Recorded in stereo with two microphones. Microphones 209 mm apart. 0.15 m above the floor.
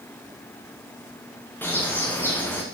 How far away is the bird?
About 3 m.